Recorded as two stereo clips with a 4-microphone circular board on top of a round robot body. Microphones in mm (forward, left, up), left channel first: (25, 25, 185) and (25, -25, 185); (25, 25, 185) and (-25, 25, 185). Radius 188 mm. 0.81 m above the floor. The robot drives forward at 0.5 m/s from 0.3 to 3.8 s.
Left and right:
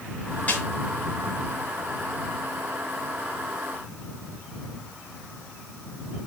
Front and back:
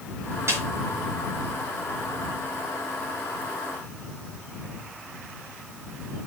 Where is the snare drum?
150° left, 6 m.